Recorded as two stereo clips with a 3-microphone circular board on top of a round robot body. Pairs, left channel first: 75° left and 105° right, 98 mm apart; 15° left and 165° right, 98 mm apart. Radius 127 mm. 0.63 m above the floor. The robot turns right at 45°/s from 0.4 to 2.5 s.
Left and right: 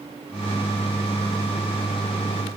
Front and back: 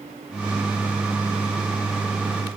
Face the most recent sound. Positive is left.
No sound to turn to.